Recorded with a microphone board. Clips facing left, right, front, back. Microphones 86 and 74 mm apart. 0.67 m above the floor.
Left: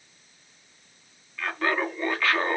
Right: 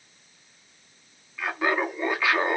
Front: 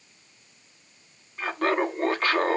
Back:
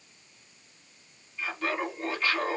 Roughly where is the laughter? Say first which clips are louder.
Right 1 dB, front 7 dB; ahead.